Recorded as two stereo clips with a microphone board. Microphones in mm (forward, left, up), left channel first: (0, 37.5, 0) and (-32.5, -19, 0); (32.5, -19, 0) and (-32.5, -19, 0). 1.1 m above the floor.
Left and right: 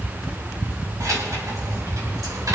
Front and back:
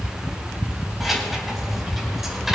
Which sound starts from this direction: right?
Keys jangling, at 1.0 s.